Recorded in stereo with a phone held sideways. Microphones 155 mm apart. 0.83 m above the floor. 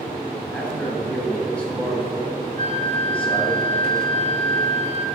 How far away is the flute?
About 2.5 m.